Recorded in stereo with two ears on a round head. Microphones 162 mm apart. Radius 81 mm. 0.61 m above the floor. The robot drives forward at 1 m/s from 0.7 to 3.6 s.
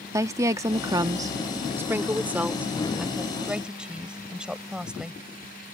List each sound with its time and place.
0.1 s a woman speaking: 20° right (ahead or behind); by 5.2 s 5° right (ahead or behind)